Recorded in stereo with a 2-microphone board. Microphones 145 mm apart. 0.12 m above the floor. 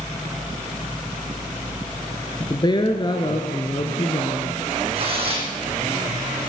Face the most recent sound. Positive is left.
turn(degrees=-40)  # may be behind; listen again after turning